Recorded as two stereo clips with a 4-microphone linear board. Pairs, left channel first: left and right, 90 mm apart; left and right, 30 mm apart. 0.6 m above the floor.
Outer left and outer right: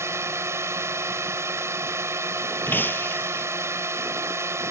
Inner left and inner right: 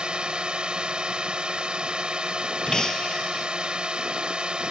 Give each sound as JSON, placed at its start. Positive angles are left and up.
{"t": 0.0, "sound": "a drone", "side_deg": -35}
{"t": 2.7, "sound": "breaking glass", "side_deg": 20}